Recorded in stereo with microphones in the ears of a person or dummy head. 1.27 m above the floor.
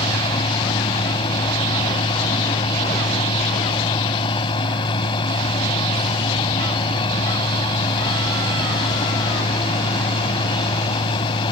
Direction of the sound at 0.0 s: 30° left (ahead or behind).